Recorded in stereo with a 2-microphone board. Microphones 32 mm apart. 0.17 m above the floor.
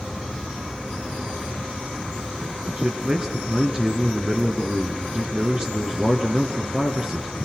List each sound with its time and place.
2.8 s a man speaking: 35° right (ahead or behind), 2.5 m